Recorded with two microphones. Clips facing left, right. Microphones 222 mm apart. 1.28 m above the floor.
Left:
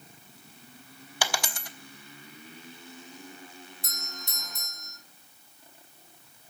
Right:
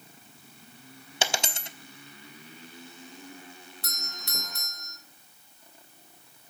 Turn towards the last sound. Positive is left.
turn(degrees=-70)  # may be behind; listen again after turning